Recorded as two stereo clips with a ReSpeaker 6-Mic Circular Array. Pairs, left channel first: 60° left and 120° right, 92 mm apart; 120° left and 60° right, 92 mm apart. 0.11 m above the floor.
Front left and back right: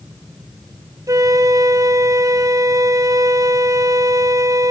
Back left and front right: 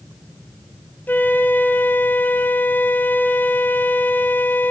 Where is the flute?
170° right, 0.8 m.